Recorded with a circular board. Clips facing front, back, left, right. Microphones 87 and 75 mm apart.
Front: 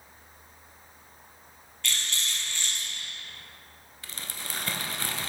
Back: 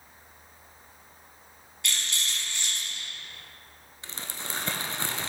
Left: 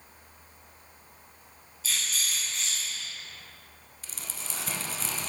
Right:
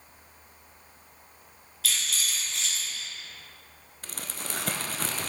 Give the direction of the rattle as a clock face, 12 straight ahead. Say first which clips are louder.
Even, right 1 dB; 3 o'clock.